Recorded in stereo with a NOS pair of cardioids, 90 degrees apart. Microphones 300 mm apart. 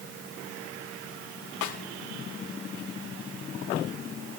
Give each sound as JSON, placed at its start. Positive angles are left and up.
{"t": 1.6, "sound": "a snare drum", "azimuth_deg": 70, "distance_m": 4.5}